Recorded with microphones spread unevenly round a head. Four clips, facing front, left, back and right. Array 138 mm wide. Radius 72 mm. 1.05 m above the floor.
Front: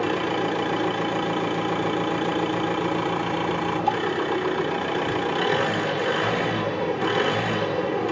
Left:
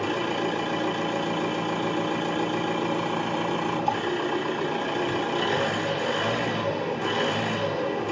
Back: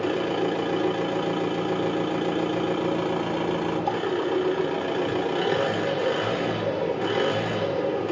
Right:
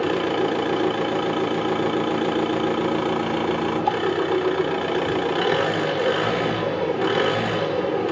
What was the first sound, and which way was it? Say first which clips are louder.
An engine running: right 5 dB, front 1 dB; 90° right.